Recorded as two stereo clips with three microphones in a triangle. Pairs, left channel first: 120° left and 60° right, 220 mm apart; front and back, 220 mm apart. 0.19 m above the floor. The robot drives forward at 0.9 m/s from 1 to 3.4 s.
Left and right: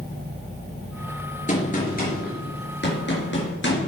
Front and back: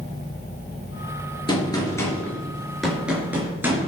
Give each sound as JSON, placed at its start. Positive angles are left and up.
{"t": 1.5, "sound": "a gunshot", "azimuth_deg": 70, "distance_m": 3.5}